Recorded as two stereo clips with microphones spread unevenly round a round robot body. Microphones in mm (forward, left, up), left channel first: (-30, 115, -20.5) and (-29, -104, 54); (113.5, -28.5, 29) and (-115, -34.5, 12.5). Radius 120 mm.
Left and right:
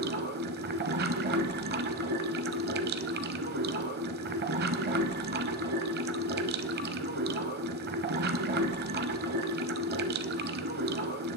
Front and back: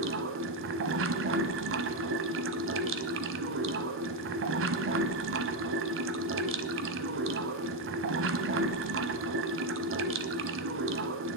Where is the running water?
145° right, 0.9 m.